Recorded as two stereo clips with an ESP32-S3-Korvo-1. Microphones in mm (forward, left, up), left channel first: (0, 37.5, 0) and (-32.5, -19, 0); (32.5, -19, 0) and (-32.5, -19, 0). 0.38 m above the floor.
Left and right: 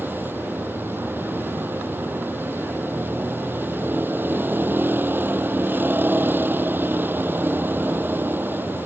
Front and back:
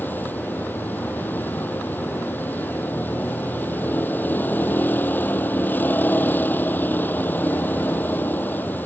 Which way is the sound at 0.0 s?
60° right.